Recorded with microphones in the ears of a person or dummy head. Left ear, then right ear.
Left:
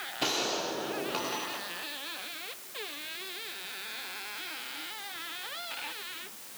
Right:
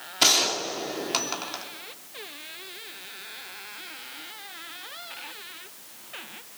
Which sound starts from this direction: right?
A gunshot, at 0.2 s.